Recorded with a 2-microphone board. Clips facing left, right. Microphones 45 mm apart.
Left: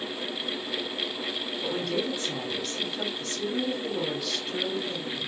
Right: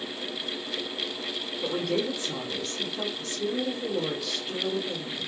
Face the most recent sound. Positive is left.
turn(degrees=-5)  # may be behind; listen again after turning